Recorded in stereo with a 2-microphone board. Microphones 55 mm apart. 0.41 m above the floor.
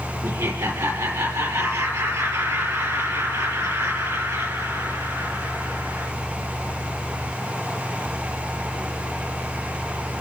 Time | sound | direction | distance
0.2 | laughter | 70° right (ahead or behind) | 6.5 m